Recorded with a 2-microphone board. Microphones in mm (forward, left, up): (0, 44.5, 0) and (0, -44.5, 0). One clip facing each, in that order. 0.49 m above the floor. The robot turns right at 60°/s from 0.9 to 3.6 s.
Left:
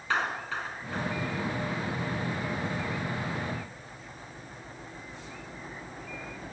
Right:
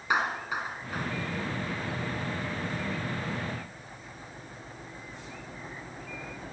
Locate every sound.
0.1 s a clap: 15° right (ahead or behind), 5 m; by 1.1 s centre (ahead or behind), 5 m